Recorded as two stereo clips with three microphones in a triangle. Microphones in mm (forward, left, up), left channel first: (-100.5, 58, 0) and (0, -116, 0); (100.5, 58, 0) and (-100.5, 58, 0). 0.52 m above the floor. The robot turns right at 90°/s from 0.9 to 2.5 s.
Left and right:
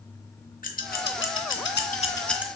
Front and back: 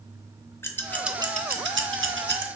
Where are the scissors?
80° left, 0.6 m; by 2.5 s 140° right, 0.6 m.